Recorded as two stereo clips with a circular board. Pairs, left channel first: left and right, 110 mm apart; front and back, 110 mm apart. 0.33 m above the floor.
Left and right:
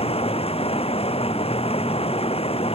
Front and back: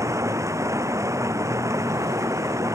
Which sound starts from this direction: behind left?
Running water, at 0.0 s.